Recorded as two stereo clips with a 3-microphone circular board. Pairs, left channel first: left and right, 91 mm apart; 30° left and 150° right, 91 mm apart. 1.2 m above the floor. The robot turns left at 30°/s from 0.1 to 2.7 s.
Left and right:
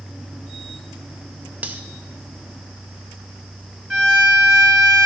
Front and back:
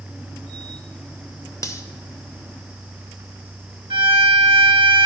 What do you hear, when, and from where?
1.6 s cutlery clinking: 20° right, 0.6 m; by 1.8 s 25° right, 0.6 m
3.9 s a violin: 170° right, 2.5 m